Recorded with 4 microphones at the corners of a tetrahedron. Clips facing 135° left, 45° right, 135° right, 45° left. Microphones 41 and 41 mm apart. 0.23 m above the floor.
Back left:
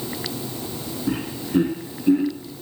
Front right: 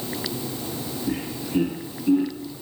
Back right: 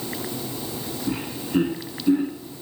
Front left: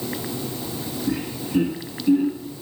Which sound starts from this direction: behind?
Laughter, at 1.1 s.